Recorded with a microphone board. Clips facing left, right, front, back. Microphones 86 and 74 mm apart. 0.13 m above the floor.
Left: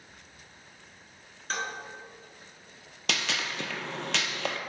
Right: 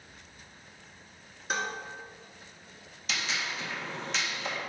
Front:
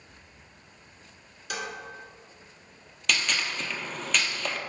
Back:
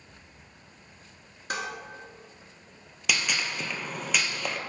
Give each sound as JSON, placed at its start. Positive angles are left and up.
{"t": 1.5, "sound": "dishes clattering", "azimuth_deg": -165, "distance_m": 1.1}
{"t": 3.1, "sound": "a gunshot", "azimuth_deg": 100, "distance_m": 0.6}